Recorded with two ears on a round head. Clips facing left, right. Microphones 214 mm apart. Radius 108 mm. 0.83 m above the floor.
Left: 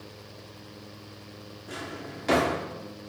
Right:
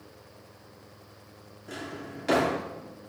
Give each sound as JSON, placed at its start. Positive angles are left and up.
{"t": 1.7, "sound": "a drawer", "side_deg": -5, "distance_m": 0.9}